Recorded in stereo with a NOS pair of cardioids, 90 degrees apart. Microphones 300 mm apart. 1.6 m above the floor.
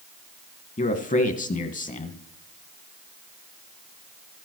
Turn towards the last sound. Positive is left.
turn(degrees=25)